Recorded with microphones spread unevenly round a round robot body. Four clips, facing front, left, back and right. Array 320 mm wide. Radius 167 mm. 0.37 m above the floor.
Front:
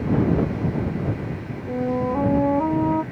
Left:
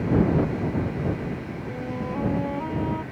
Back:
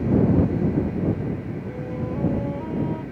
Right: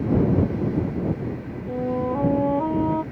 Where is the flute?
20° right.